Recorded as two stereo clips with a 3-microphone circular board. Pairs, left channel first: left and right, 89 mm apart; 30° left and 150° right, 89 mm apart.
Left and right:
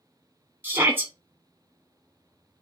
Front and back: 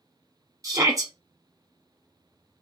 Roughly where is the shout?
Behind right.